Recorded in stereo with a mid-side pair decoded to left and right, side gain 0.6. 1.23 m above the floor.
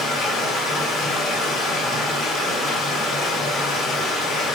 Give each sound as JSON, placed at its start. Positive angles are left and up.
{"t": 0.0, "sound": "running water", "azimuth_deg": 45, "distance_m": 0.9}